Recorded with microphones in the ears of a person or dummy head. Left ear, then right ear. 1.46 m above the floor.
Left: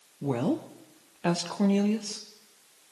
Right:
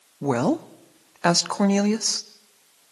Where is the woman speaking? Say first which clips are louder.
Right 6 dB; 50° right (ahead or behind), 0.7 m.